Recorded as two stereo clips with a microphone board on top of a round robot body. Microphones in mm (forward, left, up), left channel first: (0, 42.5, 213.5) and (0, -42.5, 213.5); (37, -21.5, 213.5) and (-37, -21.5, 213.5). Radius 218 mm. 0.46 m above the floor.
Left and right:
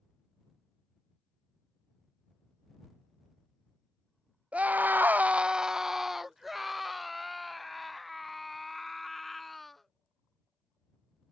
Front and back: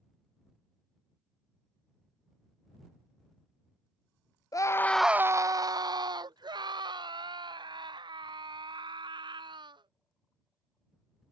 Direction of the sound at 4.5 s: 20° right.